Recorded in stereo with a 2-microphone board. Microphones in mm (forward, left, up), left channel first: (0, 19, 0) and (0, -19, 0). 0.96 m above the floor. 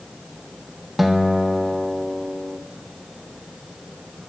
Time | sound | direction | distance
1.0 | a guitar | 5° right (ahead or behind) | 1.1 m